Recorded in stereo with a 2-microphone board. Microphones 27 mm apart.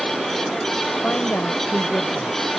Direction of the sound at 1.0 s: 80° left.